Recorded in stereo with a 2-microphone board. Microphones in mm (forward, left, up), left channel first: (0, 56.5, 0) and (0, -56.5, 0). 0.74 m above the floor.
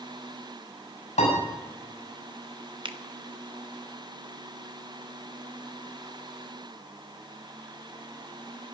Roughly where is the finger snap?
Right.